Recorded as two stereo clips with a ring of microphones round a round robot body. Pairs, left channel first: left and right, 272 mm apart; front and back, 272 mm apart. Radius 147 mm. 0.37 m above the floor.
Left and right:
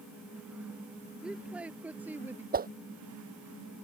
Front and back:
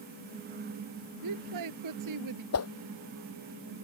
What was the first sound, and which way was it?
A woman speaking, 175° right.